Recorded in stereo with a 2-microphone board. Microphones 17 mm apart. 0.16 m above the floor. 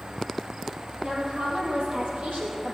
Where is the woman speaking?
55° right (ahead or behind), 3.5 m; by 2.8 s 60° right (ahead or behind), 4.5 m.